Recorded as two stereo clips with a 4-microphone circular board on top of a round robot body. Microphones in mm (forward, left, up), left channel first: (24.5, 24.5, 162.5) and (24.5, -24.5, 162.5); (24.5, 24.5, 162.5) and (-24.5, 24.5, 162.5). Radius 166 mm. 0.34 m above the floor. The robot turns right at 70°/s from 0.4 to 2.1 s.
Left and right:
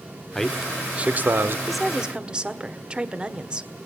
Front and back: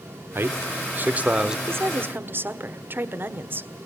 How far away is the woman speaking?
About 1.8 m.